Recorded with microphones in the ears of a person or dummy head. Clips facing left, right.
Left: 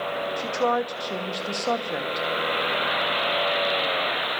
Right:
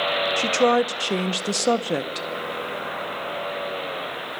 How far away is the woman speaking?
About 1.0 m.